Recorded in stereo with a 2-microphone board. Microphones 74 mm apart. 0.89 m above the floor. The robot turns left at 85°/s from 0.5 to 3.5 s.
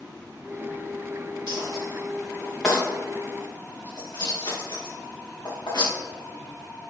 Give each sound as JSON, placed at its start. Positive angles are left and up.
{"t": 1.5, "sound": "a dropped coin", "side_deg": -75, "distance_m": 3.5}